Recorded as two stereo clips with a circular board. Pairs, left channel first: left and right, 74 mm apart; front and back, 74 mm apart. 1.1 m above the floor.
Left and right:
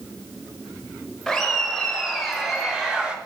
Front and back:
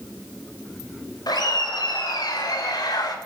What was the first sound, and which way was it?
Laughter, 5° left.